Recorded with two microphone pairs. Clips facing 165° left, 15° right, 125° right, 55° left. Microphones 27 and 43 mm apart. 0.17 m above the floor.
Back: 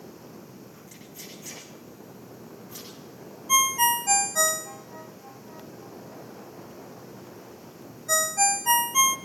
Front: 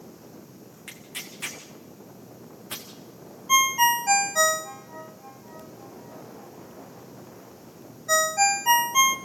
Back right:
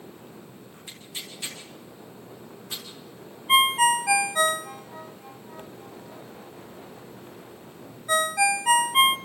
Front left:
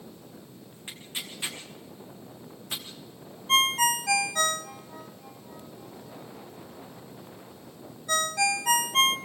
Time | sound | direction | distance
0.9 | tearing paper | 15° right | 4.5 m
3.5 | a ringtone | 70° right | 0.7 m